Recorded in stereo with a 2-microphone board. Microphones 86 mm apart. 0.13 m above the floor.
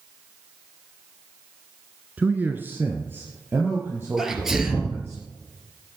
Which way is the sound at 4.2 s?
5° right (ahead or behind).